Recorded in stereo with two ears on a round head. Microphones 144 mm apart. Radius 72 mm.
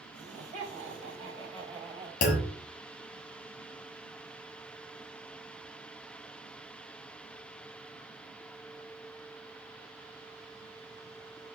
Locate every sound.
0.1 s laughter: 45° right (ahead or behind), 4 m; by 2.1 s 25° right (ahead or behind), 4 m
2.2 s a clunk: 50° left (ahead or behind), 1.3 m